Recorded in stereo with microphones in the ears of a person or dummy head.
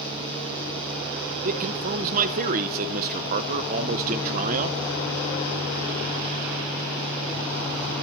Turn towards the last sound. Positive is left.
turn(degrees=-45)  # may be behind; listen again after turning